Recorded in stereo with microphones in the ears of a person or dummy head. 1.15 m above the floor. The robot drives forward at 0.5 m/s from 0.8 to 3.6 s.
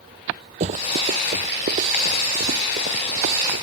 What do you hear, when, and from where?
0.6 s running footsteps: 45° right (ahead or behind); by 3.6 s 65° right (ahead or behind)